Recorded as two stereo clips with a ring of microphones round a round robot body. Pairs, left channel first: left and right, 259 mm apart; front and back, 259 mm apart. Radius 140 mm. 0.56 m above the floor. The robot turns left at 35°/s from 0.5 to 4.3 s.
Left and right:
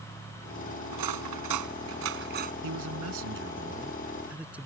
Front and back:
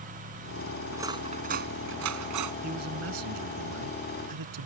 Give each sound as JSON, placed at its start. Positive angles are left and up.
{"t": 0.9, "sound": "cutlery clinking", "azimuth_deg": -95}
{"t": 2.6, "sound": "a man speaking", "azimuth_deg": -115}